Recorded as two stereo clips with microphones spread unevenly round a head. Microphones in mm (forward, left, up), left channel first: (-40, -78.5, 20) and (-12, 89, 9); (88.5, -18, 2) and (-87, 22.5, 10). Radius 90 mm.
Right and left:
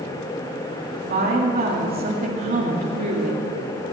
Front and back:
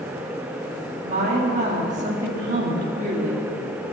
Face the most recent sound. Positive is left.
turn(degrees=115)